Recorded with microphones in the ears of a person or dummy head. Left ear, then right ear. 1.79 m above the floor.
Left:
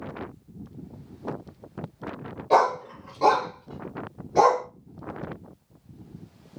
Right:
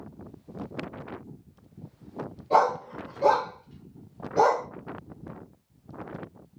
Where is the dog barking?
50° left (ahead or behind), 2.0 m; by 4.7 s 60° left (ahead or behind), 2.5 m.